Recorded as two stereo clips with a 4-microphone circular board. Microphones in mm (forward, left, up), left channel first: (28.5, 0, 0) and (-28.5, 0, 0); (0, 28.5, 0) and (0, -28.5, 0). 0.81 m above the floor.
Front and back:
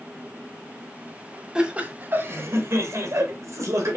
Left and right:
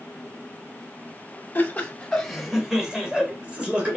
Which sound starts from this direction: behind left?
Laughter, at 1.6 s.